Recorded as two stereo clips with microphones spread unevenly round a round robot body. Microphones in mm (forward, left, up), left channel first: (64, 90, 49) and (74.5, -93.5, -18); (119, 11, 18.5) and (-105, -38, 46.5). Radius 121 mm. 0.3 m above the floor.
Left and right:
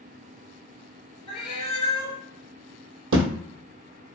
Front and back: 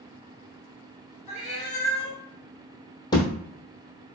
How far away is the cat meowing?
About 1.4 m.